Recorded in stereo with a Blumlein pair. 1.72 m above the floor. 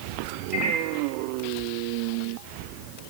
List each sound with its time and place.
0.5 s a microwave: 25° right, 1.5 m